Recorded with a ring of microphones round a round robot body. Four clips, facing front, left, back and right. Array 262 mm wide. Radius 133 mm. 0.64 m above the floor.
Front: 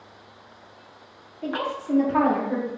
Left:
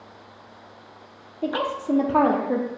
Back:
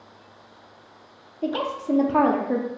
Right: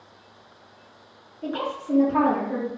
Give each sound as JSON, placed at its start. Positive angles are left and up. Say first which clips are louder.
{"t": 1.4, "sound": "a woman speaking", "louder": "left 4 dB, back 2 dB", "azimuth_deg": 130, "distance_m": 0.9}